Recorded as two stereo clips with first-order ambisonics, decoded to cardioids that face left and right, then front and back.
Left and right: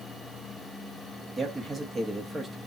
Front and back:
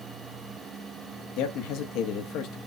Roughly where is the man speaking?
Ahead.